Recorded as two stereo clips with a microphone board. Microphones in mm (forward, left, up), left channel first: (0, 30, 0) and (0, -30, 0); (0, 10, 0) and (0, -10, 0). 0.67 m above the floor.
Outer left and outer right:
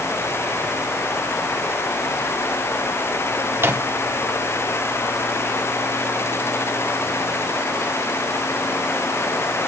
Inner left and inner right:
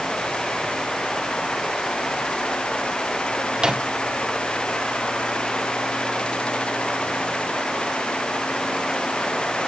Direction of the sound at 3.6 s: 40° right (ahead or behind).